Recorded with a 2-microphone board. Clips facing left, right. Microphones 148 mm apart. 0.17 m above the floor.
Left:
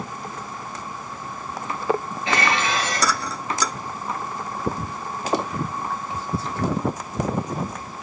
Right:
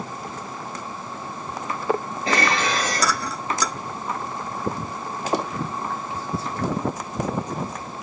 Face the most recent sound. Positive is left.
turn(degrees=-40)  # may be behind; listen again after turning